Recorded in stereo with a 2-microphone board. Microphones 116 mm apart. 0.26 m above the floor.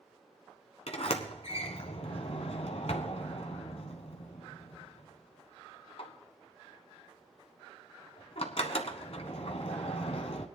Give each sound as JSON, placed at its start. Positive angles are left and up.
{"t": 0.9, "sound": "a sliding door", "side_deg": 60, "distance_m": 1.1}